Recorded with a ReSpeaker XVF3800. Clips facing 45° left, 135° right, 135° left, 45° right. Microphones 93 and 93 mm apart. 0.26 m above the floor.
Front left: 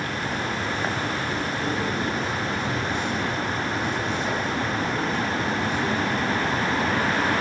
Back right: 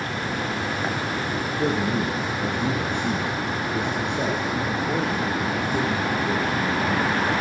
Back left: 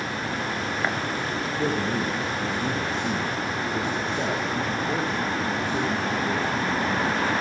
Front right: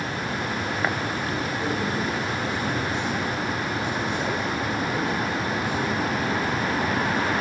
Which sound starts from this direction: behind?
A man speaking, at 1.6 s.